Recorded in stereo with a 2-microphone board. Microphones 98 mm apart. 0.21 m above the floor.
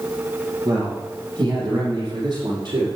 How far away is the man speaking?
About 7.5 m.